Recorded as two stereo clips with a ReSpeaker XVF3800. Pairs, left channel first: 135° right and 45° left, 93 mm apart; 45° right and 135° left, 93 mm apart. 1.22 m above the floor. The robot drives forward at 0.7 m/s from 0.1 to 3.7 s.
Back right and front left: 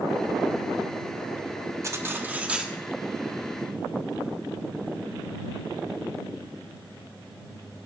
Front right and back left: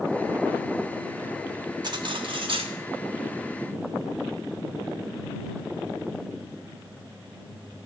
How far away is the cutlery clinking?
About 1.2 m.